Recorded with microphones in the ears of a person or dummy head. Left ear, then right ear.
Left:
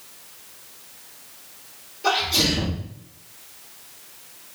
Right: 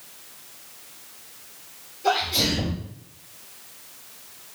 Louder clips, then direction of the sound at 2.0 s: Left 2 dB; 50° left (ahead or behind).